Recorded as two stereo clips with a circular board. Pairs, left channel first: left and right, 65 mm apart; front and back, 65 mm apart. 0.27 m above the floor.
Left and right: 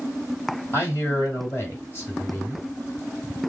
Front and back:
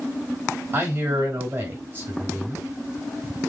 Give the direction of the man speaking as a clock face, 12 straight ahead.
8 o'clock.